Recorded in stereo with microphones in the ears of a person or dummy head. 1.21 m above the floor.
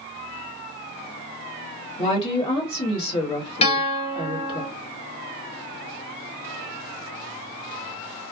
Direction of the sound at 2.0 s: 30° left (ahead or behind).